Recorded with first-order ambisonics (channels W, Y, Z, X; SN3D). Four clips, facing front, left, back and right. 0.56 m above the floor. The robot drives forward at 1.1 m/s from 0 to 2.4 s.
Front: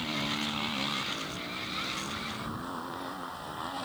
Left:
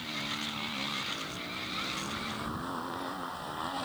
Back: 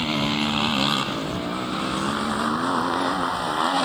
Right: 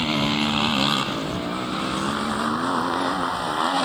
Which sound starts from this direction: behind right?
A motorcycle, at 0.0 s.